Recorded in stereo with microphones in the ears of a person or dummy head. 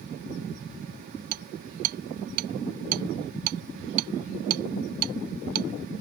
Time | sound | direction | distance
1.3 | hammering | 45° right (ahead or behind) | ?